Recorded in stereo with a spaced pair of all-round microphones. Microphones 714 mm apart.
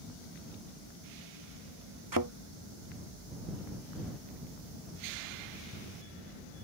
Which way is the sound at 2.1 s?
30° right (ahead or behind).